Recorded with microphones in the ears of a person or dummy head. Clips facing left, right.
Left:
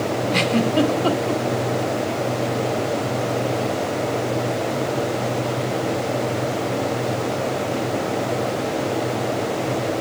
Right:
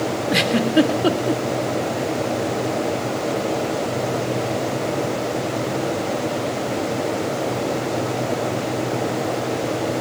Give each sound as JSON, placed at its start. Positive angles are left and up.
{"t": 0.3, "sound": "a giggle", "side_deg": -15, "distance_m": 1.7}